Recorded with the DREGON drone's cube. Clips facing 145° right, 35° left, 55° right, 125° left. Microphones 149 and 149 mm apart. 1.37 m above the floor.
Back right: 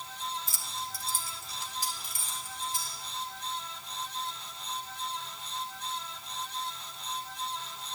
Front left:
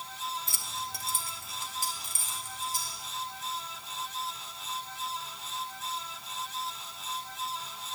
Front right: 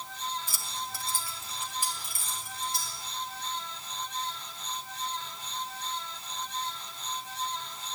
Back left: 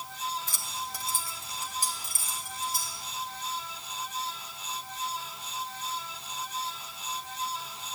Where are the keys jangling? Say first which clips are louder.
Front left 1 dB, back left 1 dB; 20° left, 0.9 m; by 3.0 s 85° left, 3 m.